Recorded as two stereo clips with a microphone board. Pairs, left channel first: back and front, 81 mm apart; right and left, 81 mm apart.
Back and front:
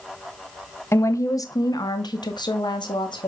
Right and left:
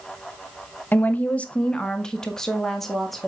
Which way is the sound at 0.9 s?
145° right.